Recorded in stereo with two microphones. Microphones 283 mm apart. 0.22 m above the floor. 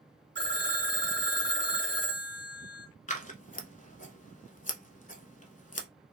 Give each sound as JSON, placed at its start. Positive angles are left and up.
{"t": 0.3, "sound": "a phone ringing", "side_deg": -40, "distance_m": 1.3}
{"t": 3.1, "sound": "scissors", "side_deg": 25, "distance_m": 0.7}